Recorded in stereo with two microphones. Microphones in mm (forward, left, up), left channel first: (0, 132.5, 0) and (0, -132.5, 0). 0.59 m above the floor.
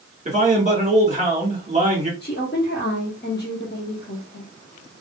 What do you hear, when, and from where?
0.2 s a man speaking: 25° right (ahead or behind), 1.6 m
2.2 s a woman speaking: 35° left (ahead or behind), 0.8 m